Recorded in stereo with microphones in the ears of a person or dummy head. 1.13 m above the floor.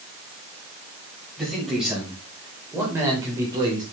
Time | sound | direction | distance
1.4 | a man speaking | centre (ahead or behind) | 6 m